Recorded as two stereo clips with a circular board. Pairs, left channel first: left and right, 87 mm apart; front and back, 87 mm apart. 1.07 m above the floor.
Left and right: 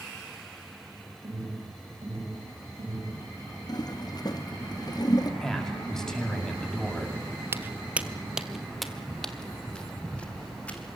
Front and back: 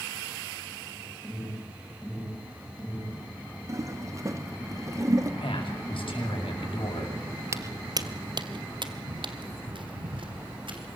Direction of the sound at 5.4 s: 5° left.